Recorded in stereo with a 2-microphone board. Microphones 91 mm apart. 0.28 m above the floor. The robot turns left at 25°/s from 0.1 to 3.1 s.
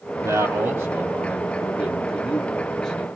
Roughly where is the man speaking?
Behind right.